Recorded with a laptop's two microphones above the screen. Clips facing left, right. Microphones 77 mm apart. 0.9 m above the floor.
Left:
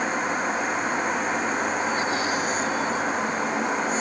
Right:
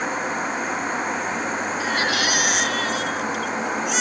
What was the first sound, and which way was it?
A baby crying, 90° right.